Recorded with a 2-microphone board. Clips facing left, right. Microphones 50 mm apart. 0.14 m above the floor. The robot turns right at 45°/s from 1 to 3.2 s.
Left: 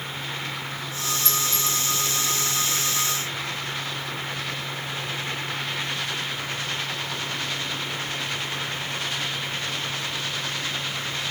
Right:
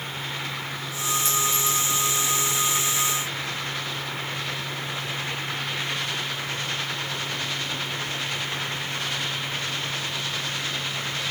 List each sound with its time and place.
1.2 s a clink: 55° right (ahead or behind), 8.5 m; by 1.9 s 30° right (ahead or behind), 8.5 m